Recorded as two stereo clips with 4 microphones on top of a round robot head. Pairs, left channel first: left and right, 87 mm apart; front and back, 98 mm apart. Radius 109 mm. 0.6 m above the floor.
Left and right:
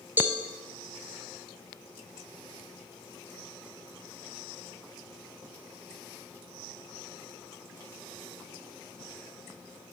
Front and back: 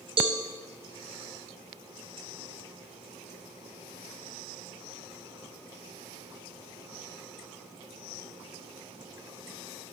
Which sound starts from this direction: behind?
A cowbell, at 0.2 s.